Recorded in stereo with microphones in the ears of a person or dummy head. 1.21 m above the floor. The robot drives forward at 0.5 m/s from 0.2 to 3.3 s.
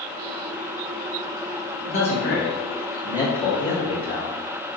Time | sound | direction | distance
1.9 | a man speaking | 65° left (ahead or behind) | 1.7 m